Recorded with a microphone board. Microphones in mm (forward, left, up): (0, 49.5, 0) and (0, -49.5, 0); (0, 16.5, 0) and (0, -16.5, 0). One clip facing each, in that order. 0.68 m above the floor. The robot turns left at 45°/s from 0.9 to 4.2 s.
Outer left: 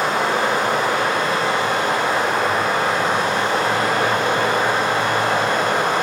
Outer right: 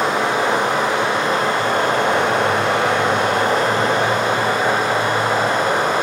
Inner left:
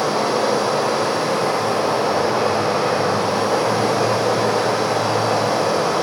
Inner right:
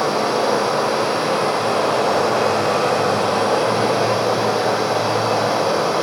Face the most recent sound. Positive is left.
turn(degrees=-165)